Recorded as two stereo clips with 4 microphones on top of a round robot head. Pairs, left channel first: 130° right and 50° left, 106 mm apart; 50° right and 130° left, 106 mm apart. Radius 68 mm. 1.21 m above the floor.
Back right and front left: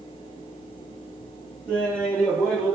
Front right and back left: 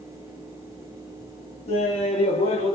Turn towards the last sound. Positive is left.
turn(degrees=-35)